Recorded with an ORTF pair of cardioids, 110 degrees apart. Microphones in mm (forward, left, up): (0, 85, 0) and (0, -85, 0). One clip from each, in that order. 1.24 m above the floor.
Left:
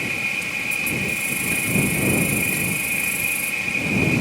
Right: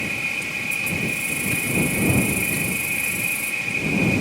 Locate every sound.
0.0 s an insect: 10° left